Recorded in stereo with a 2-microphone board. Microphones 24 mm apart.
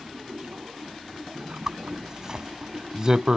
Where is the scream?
No scream in this recording.